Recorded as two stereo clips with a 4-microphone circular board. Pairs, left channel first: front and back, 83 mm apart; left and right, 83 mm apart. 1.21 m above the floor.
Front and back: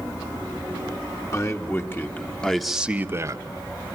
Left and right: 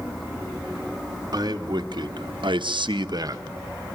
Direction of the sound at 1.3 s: 55° right.